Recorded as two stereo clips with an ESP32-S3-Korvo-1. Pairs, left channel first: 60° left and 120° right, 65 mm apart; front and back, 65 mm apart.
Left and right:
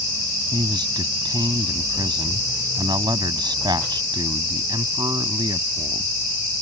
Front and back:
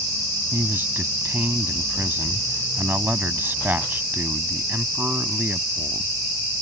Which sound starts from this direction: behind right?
A man speaking, at 0.5 s.